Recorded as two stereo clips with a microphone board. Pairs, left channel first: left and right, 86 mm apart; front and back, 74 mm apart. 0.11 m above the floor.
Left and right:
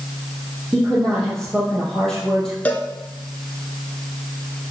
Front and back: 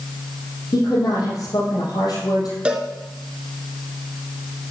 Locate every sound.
0.7 s a woman speaking: 5° left, 4 m
2.6 s a cowbell: 130° left, 1.2 m